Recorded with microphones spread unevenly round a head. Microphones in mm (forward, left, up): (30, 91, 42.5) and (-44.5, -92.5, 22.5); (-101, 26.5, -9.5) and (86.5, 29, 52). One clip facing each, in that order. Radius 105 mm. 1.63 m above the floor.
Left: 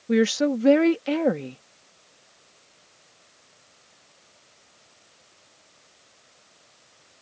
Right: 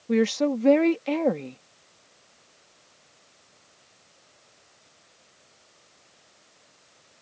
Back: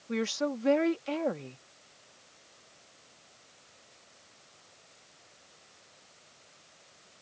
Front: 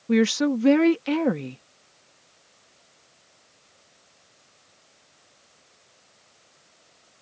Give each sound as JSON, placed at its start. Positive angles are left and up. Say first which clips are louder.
{"t": 0.1, "sound": "a woman speaking", "louder": "left 2 dB, front 11 dB", "azimuth_deg": -10}